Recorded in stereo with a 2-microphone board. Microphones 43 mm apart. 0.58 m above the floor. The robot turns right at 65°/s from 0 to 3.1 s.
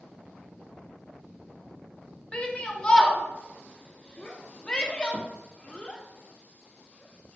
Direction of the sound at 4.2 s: 25° left (ahead or behind).